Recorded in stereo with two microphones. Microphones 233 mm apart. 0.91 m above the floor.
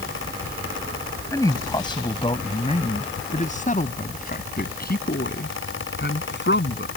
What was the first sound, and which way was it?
A man speaking, 15° left (ahead or behind).